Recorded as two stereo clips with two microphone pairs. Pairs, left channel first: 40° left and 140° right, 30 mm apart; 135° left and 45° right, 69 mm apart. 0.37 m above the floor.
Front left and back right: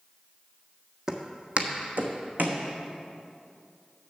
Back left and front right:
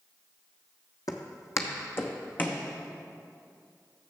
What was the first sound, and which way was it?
Footsteps, 150° left.